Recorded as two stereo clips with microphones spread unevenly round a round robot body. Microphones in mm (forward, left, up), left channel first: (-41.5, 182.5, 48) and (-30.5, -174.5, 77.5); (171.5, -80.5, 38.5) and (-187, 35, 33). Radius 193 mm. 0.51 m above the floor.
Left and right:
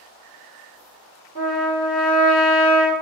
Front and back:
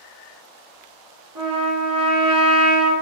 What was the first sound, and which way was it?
A trumpet, 140° left.